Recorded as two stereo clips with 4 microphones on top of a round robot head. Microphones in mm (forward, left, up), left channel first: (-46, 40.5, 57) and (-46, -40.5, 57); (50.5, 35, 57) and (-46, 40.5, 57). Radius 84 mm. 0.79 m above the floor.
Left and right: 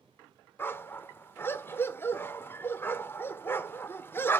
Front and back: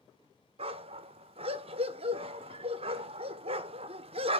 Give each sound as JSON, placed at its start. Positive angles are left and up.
{"t": 0.6, "sound": "a dog barking", "azimuth_deg": 155, "distance_m": 1.0}